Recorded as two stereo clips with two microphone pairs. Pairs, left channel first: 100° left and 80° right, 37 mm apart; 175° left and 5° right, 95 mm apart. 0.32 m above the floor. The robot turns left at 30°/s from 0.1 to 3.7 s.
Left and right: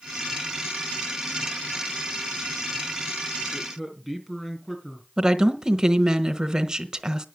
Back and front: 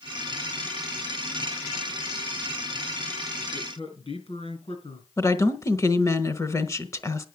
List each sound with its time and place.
3.5 s a man speaking: straight behind, 4.5 m; by 5.1 s 175° left, 4.5 m
5.2 s a woman speaking: 150° right, 1.4 m